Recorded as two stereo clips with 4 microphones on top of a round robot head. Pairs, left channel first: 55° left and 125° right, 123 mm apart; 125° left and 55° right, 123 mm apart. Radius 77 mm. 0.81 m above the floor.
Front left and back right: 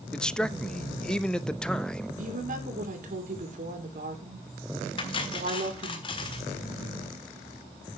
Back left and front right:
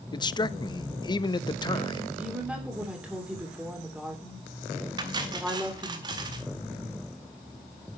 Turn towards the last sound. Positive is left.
turn(degrees=5)